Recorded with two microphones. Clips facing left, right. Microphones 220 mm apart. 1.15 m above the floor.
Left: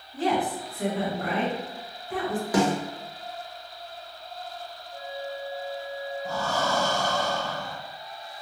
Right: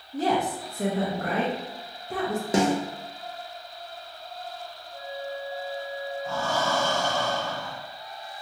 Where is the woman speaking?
45° right (ahead or behind), 0.7 m.